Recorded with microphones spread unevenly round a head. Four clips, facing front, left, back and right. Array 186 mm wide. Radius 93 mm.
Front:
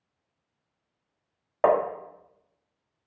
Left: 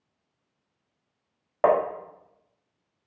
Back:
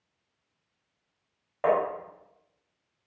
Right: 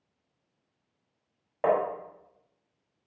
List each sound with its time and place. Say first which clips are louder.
1.6 s tapping: left 4 dB, front 3 dB; 65° left, 1.5 m